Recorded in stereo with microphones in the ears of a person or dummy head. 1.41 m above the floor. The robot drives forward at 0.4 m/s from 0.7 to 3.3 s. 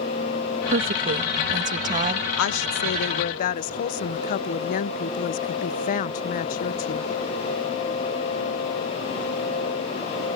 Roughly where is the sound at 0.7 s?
Right.